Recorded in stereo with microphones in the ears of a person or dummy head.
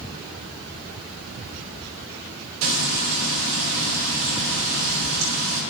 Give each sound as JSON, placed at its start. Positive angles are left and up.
{"t": 2.6, "sound": "frying", "side_deg": -85, "distance_m": 3.0}